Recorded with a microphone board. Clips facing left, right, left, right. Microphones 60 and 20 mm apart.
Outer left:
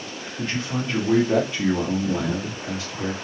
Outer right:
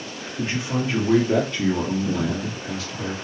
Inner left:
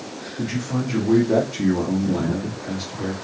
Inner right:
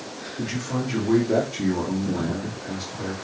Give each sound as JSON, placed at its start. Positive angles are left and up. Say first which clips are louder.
{"t": 0.4, "sound": "a man speaking", "louder": "outer right 2 dB, inner left 2 dB", "side_deg": -20, "distance_m": 1.4}